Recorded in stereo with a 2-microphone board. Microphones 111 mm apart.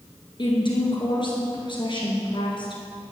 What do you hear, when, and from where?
0.4 s a woman speaking: 50° left (ahead or behind), 2 m